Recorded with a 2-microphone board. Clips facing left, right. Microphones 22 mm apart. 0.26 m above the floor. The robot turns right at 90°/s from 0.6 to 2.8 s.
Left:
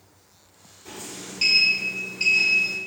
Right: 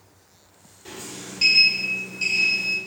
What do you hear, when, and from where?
0.8 s a sliding door: 45° right, 1.2 m; by 2.8 s 130° left, 1.2 m